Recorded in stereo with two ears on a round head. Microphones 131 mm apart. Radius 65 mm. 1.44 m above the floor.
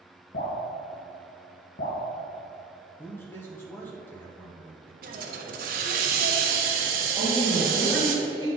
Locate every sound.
0.3 s dripping: 60° left (ahead or behind), 2.5 m
3.0 s a man speaking: 15° left (ahead or behind), 0.9 m
5.0 s a hiss: 65° right (ahead or behind), 1.2 m
7.2 s a woman speaking: 15° left (ahead or behind), 3 m